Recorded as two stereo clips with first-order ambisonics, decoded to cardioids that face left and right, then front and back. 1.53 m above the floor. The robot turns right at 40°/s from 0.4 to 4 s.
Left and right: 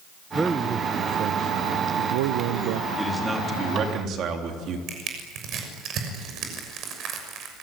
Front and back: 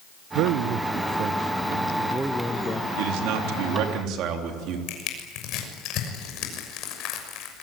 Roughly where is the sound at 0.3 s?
Behind.